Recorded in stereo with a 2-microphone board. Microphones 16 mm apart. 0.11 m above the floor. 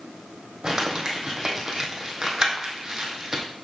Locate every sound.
0.6 s crumpling: 30° right (ahead or behind), 1.5 m